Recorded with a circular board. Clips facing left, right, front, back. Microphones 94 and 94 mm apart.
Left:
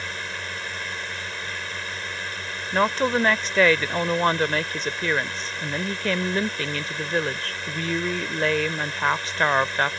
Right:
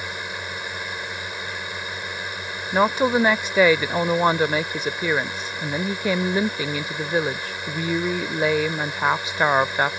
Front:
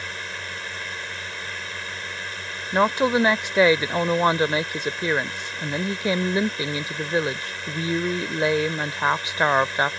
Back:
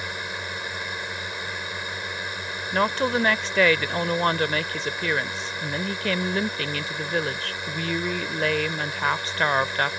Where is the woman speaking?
35° right.